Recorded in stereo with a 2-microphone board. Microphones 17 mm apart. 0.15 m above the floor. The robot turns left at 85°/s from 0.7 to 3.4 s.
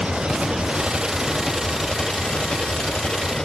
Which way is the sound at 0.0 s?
95° right.